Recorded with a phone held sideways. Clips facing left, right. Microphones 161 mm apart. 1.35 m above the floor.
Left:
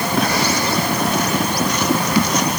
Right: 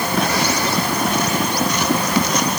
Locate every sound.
Only background noise.